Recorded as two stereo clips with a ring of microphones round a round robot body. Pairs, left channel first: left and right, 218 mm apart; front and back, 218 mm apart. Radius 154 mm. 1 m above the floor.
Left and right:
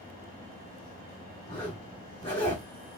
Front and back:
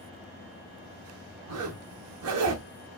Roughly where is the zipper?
Behind.